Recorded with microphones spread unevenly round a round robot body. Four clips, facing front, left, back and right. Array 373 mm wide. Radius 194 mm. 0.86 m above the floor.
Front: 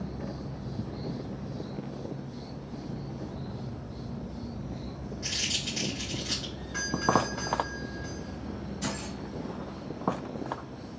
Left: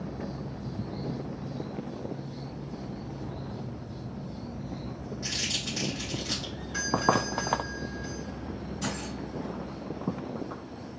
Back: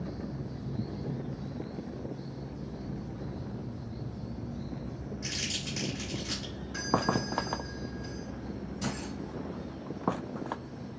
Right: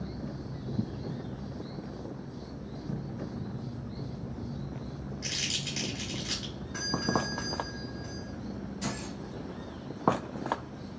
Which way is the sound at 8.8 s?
165° right.